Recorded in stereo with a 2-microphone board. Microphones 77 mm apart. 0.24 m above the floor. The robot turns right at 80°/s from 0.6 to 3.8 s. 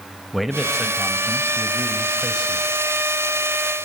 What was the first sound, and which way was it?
A man speaking, centre (ahead or behind).